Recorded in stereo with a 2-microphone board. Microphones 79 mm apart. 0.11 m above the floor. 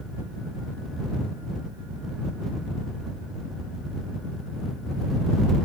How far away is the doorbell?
No doorbell in this recording.